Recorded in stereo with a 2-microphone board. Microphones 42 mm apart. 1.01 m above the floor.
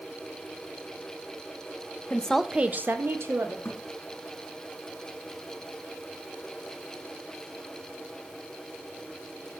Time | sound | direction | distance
2.1 | a woman speaking | 30° left (ahead or behind) | 0.7 m
3.6 | a thud | 65° left (ahead or behind) | 3 m